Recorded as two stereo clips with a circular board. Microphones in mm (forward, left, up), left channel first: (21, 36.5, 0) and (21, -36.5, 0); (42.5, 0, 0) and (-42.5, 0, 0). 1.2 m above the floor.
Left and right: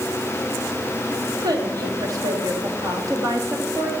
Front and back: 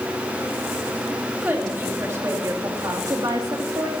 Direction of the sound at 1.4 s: 110° right.